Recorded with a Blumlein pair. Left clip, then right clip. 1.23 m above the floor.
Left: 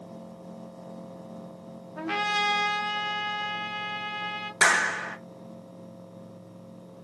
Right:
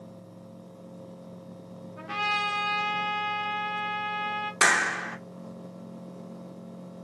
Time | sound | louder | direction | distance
2.0 | a trumpet | left 1 dB | 65° left | 0.8 m
4.6 | a clap | left 1 dB | straight ahead | 0.6 m